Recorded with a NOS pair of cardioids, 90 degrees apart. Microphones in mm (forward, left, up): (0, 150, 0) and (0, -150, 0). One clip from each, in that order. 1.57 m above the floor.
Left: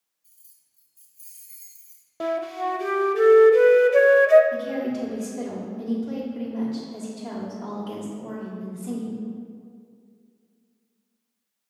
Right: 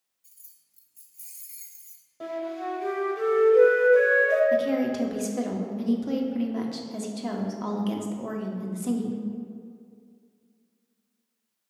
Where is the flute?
55° left, 0.6 m.